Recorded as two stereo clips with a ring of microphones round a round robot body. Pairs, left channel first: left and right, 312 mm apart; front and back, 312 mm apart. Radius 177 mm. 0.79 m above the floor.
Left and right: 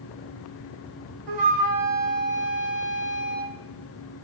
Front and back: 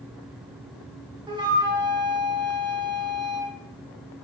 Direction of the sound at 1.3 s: 105° right.